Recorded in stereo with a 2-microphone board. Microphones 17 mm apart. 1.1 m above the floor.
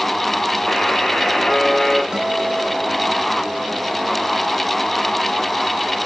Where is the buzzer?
65° left (ahead or behind), 4.5 m.